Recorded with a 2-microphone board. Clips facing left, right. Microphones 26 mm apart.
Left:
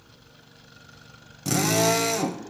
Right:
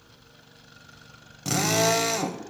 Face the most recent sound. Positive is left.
turn(degrees=-5)  # may be behind; listen again after turning